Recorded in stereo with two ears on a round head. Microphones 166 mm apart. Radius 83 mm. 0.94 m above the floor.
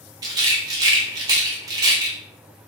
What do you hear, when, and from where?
0.2 s a rattle: 20° right (ahead or behind), 0.6 m